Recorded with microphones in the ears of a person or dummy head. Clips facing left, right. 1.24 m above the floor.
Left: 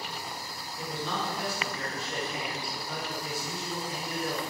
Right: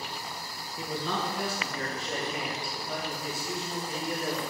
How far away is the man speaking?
About 1.0 m.